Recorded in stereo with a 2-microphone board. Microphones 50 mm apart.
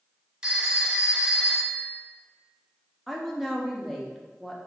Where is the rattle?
I don't hear a rattle.